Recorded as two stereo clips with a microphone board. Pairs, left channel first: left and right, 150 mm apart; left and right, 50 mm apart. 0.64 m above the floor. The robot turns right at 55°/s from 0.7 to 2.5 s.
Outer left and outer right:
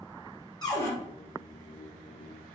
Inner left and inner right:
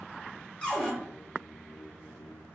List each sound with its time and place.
0.6 s a cupboard door: 25° left (ahead or behind), 0.9 m; by 0.9 s 15° left (ahead or behind), 0.9 m